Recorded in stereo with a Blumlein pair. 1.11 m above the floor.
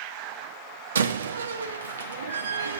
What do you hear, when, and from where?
0.9 s a door slam: 65° right, 0.8 m